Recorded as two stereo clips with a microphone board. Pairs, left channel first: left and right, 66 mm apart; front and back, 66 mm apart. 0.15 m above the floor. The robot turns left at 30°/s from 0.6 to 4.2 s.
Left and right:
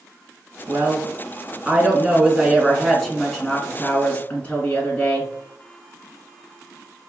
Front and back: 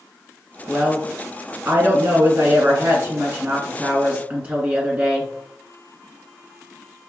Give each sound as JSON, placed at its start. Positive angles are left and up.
{"t": 0.7, "sound": "a woman speaking", "azimuth_deg": -130, "distance_m": 2.0}